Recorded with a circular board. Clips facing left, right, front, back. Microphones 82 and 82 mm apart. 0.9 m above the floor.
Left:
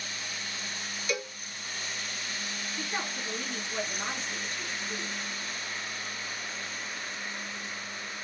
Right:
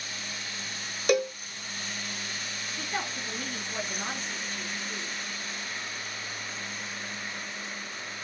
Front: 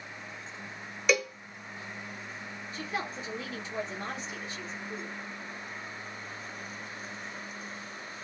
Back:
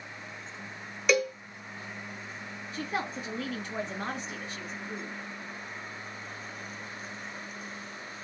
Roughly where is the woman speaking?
Behind.